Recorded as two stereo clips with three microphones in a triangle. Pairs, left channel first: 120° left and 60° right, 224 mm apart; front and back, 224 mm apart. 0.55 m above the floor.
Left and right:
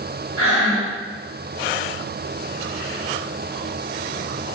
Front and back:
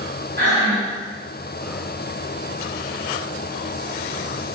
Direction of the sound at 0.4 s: 130° left.